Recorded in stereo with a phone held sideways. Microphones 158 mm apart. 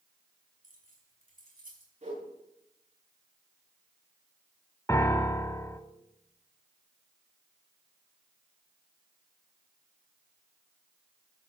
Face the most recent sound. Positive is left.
turn(degrees=20)  # may be behind; listen again after turning